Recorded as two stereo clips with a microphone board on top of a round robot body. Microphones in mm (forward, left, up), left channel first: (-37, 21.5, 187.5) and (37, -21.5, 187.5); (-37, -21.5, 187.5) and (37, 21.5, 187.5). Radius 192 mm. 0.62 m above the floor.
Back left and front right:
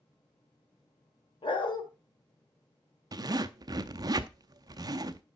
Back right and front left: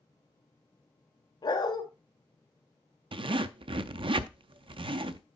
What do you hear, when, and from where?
1.4 s a dog barking: 170° left, 1.4 m
3.1 s a zipper: 15° left, 0.5 m